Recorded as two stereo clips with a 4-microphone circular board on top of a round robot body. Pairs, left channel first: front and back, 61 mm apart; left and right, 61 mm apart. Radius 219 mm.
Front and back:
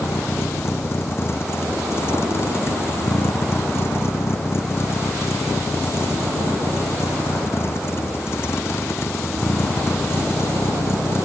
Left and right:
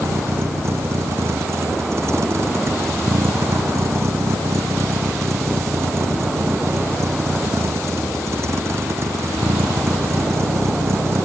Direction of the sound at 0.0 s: 50° right.